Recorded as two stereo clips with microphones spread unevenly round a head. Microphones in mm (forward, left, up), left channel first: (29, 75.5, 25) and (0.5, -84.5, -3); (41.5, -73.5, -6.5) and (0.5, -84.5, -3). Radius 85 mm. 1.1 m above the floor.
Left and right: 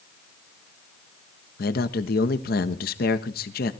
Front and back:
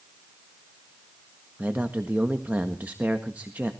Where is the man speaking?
120° left, 1.4 m.